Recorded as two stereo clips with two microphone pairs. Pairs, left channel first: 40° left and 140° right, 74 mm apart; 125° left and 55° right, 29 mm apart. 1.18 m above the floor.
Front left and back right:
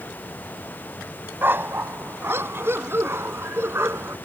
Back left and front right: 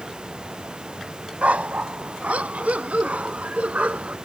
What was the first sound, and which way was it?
A dog barking, 85° right.